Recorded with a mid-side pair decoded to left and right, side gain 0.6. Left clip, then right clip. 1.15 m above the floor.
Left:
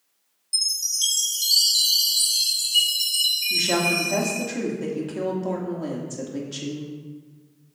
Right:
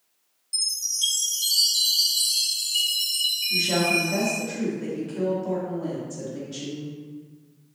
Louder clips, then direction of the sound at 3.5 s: Left 1 dB; 35° left.